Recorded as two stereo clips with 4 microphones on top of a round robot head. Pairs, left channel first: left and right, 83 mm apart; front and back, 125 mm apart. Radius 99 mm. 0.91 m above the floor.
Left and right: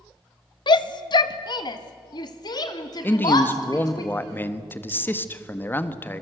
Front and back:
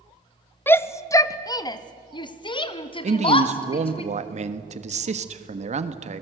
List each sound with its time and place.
0.7 s a shout: 70° left, 1.1 m; by 4.0 s 40° left, 2.5 m
3.0 s a man speaking: 155° left, 1.5 m